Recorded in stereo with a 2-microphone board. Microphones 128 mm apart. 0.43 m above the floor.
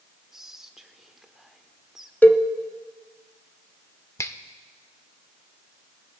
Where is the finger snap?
25° left (ahead or behind), 0.6 m.